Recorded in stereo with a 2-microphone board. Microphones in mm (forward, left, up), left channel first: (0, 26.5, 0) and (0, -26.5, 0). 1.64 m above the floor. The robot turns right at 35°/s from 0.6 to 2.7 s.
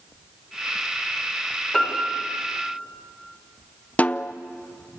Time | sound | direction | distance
1.7 | a piano | 15° left (ahead or behind) | 7.5 m
4.0 | a snare drum | 30° left (ahead or behind) | 0.6 m